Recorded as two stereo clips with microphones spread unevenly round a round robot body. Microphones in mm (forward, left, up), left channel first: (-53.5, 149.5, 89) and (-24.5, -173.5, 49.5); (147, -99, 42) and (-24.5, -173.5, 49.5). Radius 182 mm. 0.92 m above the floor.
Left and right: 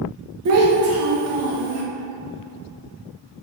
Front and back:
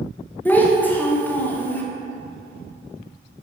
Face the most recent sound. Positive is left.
turn(degrees=-55)